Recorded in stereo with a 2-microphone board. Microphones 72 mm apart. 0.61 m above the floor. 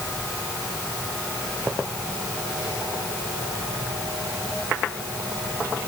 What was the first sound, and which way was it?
Only background noise.